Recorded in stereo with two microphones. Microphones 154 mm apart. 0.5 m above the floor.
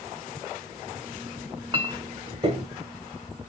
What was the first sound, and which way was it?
A clink, 35° right (ahead or behind).